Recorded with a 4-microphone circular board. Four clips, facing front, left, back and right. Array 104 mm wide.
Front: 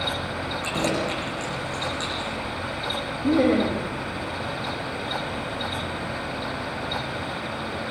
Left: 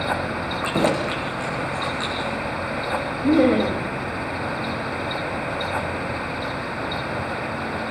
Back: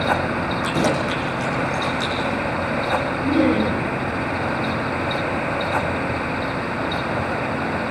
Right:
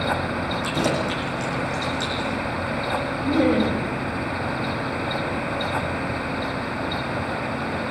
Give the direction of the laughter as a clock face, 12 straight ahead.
10 o'clock.